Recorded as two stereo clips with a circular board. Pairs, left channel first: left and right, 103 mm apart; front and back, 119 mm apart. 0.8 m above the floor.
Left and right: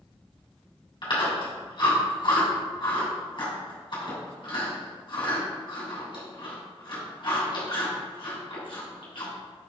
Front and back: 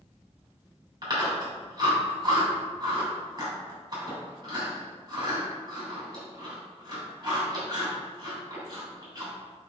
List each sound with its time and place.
1.0 s chewing: 130° left, 3 m